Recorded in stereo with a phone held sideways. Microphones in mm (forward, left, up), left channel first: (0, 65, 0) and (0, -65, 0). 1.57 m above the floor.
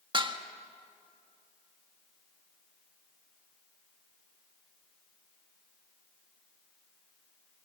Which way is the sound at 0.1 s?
40° right (ahead or behind).